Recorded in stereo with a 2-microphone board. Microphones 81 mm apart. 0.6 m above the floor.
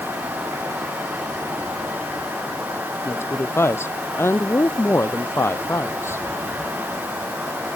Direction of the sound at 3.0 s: 30° left (ahead or behind).